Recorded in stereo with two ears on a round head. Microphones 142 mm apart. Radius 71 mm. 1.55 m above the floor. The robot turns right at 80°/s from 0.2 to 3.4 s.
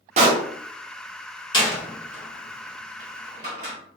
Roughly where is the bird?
No bird in this recording.